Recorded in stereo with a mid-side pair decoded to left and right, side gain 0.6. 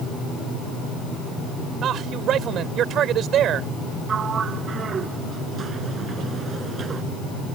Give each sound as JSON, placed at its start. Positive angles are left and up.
{"t": 1.8, "sound": "a man speaking", "azimuth_deg": -55}
{"t": 4.1, "sound": "a sliding door", "azimuth_deg": -35}